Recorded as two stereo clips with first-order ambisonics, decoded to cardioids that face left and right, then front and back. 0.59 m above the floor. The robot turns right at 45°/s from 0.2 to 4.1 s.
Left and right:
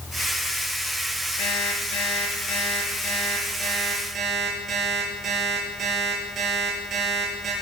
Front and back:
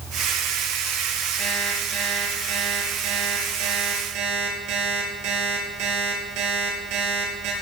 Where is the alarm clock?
85° left, 8 m; by 7.5 s 155° right, 8 m.